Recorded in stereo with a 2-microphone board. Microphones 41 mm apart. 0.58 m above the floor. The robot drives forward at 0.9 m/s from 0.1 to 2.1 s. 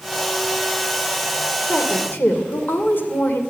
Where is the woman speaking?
60° left (ahead or behind), 2.5 m.